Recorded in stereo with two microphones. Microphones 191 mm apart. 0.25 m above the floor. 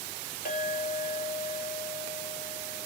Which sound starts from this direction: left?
A clink, at 0.5 s.